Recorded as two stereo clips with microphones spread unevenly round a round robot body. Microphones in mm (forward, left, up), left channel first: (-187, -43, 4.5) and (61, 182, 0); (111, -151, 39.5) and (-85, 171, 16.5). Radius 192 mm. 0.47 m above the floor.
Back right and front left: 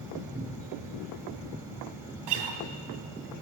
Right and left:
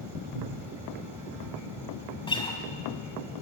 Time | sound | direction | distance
0.3 | a cupboard door | 125° left | 2.5 m
2.3 | a guitar | 20° left | 2.5 m